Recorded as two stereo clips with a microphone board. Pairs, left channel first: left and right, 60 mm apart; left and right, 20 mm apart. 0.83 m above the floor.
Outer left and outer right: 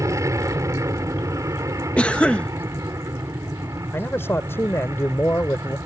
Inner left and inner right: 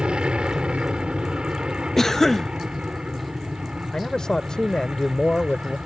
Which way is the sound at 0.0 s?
60° right (ahead or behind).